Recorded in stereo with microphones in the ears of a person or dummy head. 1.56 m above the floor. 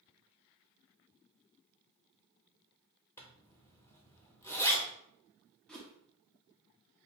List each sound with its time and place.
3.2 s a zipper: 15° left (ahead or behind), 1.0 m
5.7 s a whoosh: 5° left (ahead or behind), 0.8 m